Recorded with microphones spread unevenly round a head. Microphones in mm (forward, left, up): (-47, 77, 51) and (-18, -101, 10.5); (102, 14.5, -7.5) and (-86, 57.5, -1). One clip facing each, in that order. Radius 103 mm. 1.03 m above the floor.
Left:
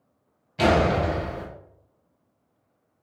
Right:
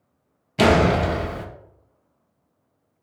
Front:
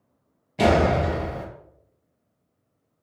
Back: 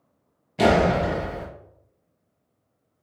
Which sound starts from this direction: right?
A door slam, at 0.6 s.